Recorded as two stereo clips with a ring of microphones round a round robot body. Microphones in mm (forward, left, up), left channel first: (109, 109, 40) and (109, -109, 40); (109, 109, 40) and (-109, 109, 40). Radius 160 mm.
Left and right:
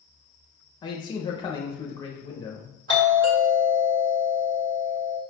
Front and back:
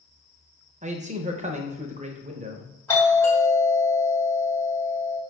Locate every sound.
0.8 s a man speaking: 150° left, 0.7 m
2.9 s a doorbell: 80° right, 1.8 m